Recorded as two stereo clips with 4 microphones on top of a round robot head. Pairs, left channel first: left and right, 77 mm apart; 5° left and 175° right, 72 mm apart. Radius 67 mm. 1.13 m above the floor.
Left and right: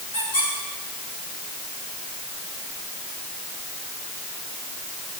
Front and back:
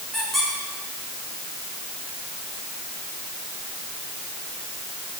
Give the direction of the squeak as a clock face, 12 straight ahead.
9 o'clock.